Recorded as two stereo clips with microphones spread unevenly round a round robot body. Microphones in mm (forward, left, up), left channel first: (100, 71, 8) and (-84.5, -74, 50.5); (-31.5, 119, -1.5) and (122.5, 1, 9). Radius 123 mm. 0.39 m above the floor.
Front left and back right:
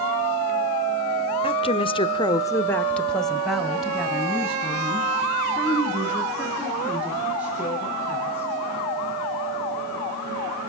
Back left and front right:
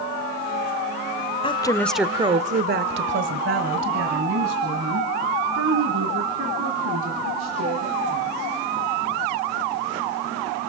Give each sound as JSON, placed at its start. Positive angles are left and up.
{"t": 1.4, "sound": "a woman speaking", "azimuth_deg": 90, "distance_m": 1.2}